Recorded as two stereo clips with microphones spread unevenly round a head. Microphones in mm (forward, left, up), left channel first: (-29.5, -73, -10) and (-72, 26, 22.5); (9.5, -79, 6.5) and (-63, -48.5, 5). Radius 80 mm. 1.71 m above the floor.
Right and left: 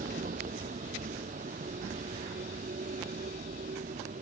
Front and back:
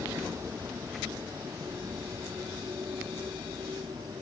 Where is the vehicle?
80° left; by 4.2 s 90° left.